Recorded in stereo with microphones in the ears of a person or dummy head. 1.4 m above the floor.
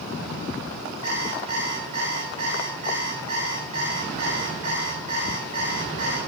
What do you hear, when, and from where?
1.0 s an alarm clock: 35° right (ahead or behind), 3.5 m